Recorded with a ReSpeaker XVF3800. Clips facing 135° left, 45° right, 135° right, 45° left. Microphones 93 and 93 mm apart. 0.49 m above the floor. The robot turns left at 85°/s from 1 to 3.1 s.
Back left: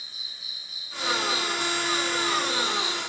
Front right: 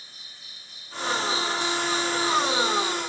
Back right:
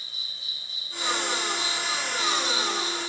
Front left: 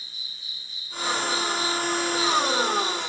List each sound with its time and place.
0.0 s an insect: 140° right; by 3.1 s 40° left